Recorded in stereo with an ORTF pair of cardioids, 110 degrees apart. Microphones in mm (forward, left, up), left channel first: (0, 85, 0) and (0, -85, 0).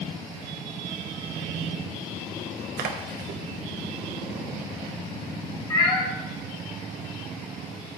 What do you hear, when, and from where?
2.8 s a splash: 65° right, 1.0 m
5.7 s a cat meowing: 25° left, 2.0 m